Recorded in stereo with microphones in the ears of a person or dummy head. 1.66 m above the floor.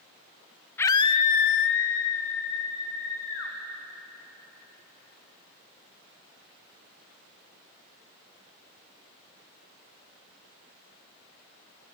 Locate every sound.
0.8 s a scream: 15° left (ahead or behind), 0.6 m; by 3.5 s 55° left (ahead or behind), 1.5 m